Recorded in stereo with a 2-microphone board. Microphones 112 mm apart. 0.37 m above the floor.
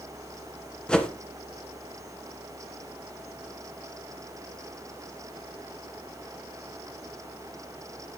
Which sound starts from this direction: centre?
A whoosh, at 0.9 s.